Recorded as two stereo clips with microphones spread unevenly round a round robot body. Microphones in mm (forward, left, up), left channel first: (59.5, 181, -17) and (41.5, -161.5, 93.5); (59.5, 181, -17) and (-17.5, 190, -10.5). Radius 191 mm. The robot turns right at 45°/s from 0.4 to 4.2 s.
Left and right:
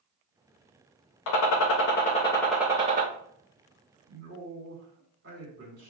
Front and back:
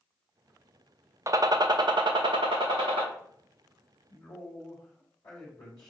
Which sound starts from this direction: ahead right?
A man speaking, at 4.1 s.